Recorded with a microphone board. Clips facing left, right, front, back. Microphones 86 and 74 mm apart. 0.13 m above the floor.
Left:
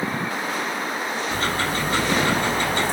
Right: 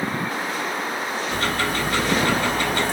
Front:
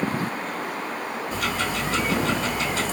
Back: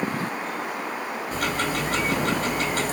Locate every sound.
1.3 s ticking: 150° left, 1.9 m